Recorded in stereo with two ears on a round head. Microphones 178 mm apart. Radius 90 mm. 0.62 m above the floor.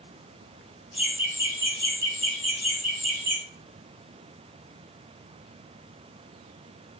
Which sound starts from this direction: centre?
Laughter, at 0.9 s.